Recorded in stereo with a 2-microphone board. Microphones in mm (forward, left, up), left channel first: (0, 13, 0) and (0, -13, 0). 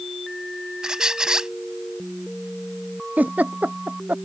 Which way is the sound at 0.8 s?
30° right (ahead or behind).